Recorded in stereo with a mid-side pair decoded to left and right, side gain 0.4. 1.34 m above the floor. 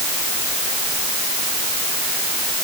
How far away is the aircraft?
I don't hear an aircraft.